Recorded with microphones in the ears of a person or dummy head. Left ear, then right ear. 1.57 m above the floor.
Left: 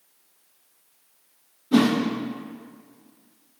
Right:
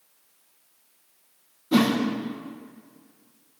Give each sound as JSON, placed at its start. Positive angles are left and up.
{"t": 1.7, "sound": "a whoosh", "side_deg": -25, "distance_m": 1.1}